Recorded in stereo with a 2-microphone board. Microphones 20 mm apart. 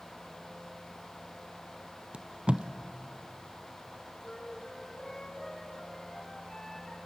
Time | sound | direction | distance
2.1 | tape being pulled | 55° right (ahead or behind) | 0.9 m
4.2 | a flute | 30° left (ahead or behind) | 7 m